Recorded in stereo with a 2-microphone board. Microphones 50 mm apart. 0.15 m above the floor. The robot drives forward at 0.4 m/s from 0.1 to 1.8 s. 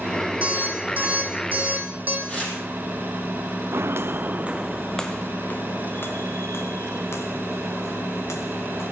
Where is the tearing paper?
25° left (ahead or behind), 5 m.